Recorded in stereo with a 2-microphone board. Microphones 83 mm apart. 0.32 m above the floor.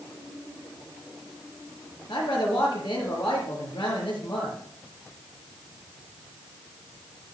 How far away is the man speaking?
About 5 m.